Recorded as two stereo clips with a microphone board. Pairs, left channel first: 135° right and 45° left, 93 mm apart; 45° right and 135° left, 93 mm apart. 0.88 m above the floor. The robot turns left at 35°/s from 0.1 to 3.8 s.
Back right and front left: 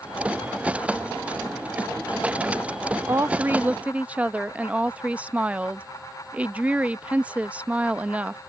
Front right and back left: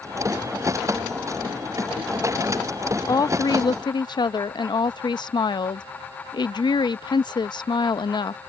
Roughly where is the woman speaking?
Ahead.